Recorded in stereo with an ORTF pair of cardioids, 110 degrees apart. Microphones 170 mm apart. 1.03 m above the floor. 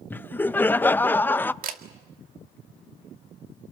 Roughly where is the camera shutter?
Ahead right.